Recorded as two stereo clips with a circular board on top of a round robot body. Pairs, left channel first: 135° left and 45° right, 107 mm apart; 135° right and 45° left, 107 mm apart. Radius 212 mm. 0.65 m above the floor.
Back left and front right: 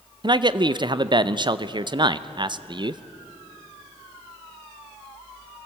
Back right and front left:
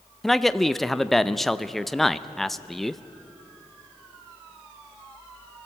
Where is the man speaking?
45° right, 0.9 m.